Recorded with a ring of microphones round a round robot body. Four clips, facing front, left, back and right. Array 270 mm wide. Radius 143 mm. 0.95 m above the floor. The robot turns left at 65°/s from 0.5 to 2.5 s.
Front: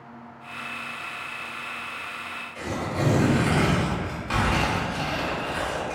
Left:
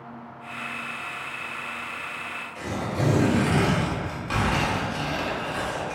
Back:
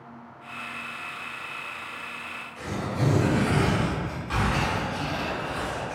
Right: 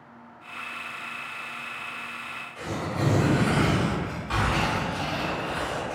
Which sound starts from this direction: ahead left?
Tearing paper, at 2.5 s.